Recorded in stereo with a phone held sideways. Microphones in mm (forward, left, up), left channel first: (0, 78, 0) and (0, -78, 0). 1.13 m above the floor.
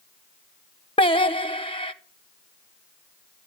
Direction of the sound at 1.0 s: 35° left (ahead or behind).